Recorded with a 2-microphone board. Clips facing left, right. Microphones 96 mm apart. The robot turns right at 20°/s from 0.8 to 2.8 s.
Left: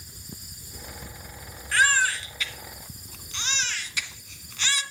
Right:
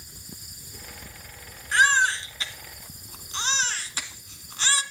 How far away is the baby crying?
About 1.4 m.